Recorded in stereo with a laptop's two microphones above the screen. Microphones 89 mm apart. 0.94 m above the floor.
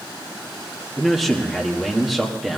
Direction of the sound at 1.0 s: Centre (ahead or behind).